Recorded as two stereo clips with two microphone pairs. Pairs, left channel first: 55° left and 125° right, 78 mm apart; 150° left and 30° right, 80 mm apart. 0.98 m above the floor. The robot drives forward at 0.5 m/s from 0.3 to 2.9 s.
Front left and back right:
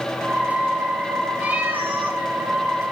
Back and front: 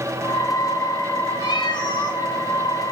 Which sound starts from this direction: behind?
A cat meowing, at 1.4 s.